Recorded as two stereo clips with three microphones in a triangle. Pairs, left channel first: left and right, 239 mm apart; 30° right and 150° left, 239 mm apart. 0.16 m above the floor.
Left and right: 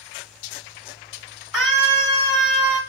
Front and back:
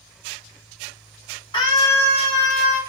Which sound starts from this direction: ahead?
A scream, at 1.5 s.